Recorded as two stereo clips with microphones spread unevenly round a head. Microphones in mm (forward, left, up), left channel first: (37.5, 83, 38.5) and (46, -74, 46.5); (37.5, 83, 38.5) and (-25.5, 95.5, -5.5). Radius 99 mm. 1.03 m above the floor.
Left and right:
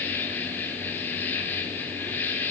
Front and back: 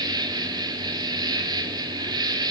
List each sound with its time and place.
0.0 s an insect: 175° left, 2 m